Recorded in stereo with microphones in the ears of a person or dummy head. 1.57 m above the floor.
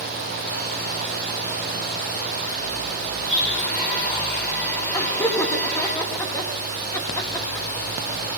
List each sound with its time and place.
3.2 s a blender: 5° left (ahead or behind), 5 m
4.9 s laughter: 10° left (ahead or behind), 1.3 m